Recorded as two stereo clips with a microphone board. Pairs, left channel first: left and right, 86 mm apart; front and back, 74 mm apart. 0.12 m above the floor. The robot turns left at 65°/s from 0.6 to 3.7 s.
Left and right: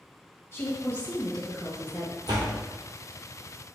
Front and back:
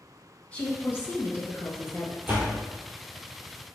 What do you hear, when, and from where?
0.5 s a woman speaking: 60° left, 1.9 m; by 2.2 s 45° right, 1.9 m
2.3 s a door slam: 120° right, 2 m; by 2.6 s 140° right, 2 m